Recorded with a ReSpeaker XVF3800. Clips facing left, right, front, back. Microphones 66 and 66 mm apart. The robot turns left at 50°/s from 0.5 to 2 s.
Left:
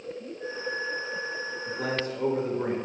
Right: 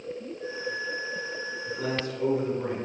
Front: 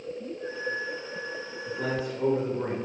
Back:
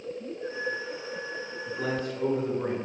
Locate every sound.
1.7 s a man speaking: 85° left, 0.9 m; by 2.8 s 70° left, 0.9 m